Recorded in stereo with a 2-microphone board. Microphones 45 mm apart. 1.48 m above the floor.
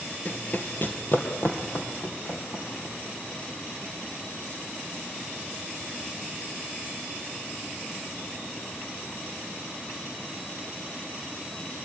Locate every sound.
0.2 s running footsteps: 35° left (ahead or behind), 1.7 m; by 3.4 s 60° left (ahead or behind), 6 m